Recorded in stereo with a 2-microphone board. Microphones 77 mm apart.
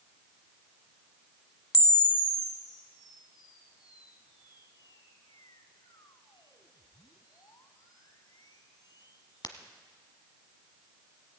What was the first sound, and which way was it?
A camera shutter, 65° left (ahead or behind).